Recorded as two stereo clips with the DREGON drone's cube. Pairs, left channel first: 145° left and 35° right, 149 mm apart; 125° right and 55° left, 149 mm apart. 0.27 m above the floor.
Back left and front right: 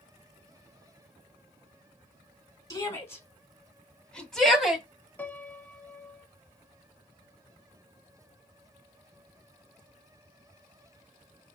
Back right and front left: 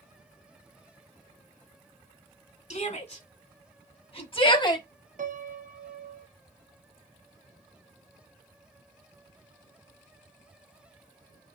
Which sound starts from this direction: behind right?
A shout, at 2.7 s.